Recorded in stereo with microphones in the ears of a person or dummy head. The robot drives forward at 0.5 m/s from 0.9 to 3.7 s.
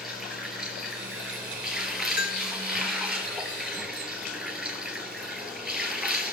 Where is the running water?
Centre (ahead or behind), 4.5 m; by 6.3 s 5° right (ahead or behind), 3 m.